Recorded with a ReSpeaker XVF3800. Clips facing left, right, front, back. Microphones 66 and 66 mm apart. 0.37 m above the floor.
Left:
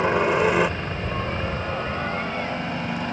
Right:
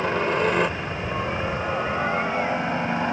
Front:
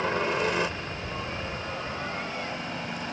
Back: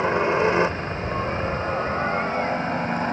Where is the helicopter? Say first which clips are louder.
Left 3 dB, back 6 dB; 140° left; by 3.1 s 140° right.